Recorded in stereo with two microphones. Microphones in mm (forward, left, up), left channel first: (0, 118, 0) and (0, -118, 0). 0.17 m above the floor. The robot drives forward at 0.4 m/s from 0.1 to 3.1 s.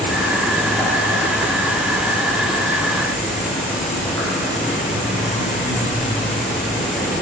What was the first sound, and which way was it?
An insect, centre (ahead or behind).